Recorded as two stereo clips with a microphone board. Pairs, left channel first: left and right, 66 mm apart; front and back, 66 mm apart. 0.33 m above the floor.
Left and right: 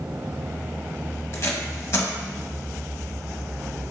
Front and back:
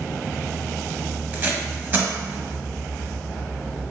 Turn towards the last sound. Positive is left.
turn(degrees=130)